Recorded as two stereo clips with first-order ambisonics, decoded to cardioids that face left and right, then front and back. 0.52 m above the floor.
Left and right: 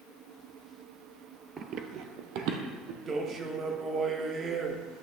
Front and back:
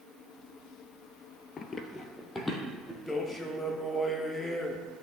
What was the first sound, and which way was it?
Running footsteps, 40° right.